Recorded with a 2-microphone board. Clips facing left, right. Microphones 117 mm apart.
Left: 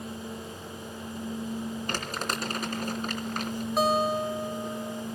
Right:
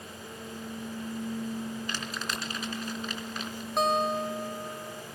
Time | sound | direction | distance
1.9 | crumpling | 50° left (ahead or behind) | 3 m
3.8 | a guitar | 5° left (ahead or behind) | 1.3 m